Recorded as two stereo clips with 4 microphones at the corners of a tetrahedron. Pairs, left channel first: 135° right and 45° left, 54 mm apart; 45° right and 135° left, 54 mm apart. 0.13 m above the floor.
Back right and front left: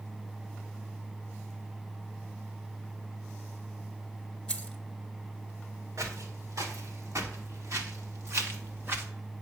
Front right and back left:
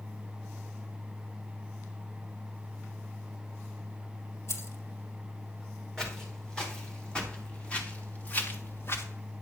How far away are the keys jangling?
About 1.7 m.